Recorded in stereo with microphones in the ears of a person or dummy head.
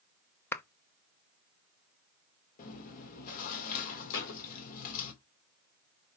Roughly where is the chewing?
Left.